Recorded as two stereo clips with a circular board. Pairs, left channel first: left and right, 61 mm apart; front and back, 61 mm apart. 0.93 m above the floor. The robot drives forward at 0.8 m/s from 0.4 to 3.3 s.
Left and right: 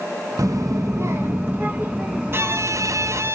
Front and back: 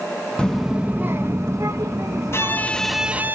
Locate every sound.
0.4 s a child speaking: 75° right, 0.7 m; by 3.3 s 165° right, 2.5 m
2.3 s a violin: 45° right, 0.7 m; by 3.4 s 125° right, 0.6 m